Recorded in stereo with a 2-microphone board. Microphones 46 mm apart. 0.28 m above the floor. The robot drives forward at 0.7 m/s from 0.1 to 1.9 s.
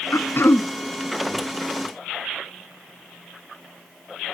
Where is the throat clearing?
60° left (ahead or behind), 0.5 m; by 0.7 s 50° left (ahead or behind), 0.6 m.